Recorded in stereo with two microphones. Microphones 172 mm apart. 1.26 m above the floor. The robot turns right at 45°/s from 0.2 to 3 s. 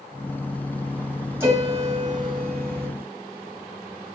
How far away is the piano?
About 2.5 m.